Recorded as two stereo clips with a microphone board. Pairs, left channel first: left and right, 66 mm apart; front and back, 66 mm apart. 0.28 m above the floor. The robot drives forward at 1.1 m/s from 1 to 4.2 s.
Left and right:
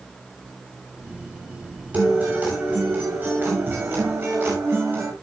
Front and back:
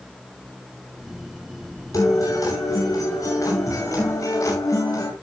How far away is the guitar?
About 8.5 m.